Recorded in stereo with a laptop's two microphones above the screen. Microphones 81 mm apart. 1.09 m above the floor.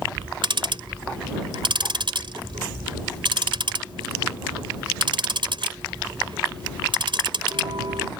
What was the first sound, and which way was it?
Ticking, 70° right (ahead or behind).